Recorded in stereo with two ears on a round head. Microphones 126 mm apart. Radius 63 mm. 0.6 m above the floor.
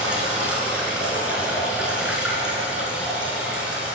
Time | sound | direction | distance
0.0 | running water | 10° right (ahead or behind) | 3 m